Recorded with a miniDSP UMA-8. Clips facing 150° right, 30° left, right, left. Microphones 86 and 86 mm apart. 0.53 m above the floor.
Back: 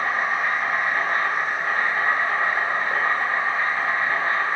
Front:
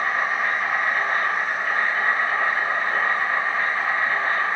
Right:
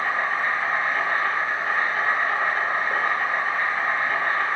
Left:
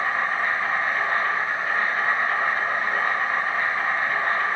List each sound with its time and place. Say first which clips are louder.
0.0 s an insect: even, even; 85° right, 1.1 m